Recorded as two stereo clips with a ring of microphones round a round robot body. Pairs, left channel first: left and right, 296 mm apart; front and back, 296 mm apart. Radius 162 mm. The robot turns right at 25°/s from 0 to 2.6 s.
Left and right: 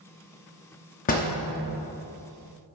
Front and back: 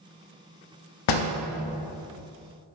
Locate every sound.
1.1 s a door slam: 25° left, 0.5 m; by 1.4 s 30° left, 0.5 m